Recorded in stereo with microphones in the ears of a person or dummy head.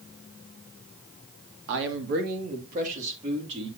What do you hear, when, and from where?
1.7 s a man speaking: 70° right (ahead or behind), 2 m; by 3.7 s 35° right (ahead or behind), 3.5 m